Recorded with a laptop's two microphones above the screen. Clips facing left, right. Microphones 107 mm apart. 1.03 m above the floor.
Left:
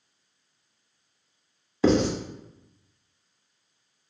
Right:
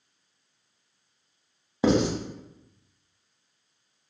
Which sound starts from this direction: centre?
Writing, at 1.8 s.